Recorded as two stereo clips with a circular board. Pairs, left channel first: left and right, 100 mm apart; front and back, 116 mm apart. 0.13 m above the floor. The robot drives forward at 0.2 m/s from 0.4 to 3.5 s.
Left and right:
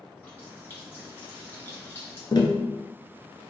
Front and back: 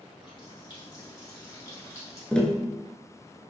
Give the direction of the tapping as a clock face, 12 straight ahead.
9 o'clock.